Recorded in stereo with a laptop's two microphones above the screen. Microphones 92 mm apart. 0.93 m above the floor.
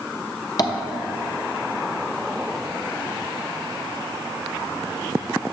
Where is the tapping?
45° left (ahead or behind), 0.8 m.